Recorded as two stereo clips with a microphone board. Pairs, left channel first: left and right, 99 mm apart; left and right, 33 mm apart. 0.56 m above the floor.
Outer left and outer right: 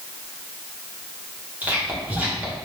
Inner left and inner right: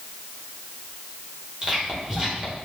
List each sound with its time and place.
1.6 s whispering: 20° right (ahead or behind), 1.1 m